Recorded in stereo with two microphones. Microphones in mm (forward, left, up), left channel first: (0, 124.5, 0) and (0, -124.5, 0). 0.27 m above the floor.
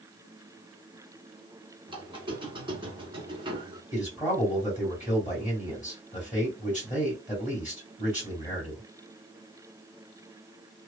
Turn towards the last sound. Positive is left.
turn(degrees=30)  # may be behind; listen again after turning